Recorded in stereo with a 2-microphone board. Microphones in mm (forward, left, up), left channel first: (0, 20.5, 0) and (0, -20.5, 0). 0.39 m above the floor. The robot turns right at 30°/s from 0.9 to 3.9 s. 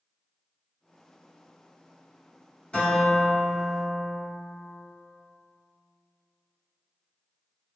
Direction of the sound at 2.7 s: 120° left.